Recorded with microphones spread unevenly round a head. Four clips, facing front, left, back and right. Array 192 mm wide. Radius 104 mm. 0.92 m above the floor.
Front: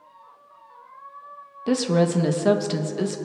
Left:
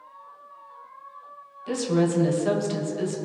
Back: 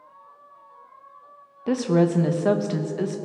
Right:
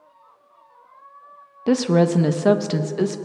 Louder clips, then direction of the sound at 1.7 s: Right 6 dB, even; 70° right.